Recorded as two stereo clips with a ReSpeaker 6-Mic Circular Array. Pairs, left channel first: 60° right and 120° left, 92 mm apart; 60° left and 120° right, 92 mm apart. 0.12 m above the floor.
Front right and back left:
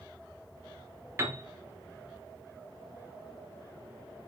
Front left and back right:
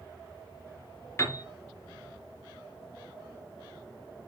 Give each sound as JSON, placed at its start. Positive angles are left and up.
{"t": 1.2, "sound": "a piano", "azimuth_deg": 85, "distance_m": 1.7}